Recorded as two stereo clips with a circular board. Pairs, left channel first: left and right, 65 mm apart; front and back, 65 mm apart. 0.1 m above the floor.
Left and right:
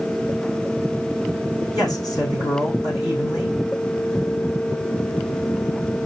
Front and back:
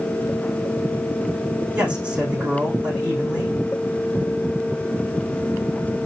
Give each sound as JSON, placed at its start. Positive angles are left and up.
{"t": 1.7, "sound": "a man speaking", "azimuth_deg": 105, "distance_m": 5.5}